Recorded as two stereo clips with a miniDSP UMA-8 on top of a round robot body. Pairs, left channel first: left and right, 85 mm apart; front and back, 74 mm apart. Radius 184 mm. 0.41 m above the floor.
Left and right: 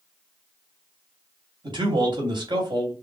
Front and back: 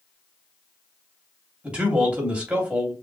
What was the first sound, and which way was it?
A man speaking, 105° right.